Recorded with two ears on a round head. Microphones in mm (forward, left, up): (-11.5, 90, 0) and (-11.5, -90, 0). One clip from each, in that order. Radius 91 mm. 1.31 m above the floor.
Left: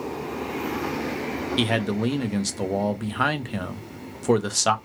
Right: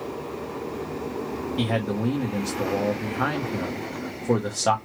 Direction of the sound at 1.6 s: 65° left (ahead or behind).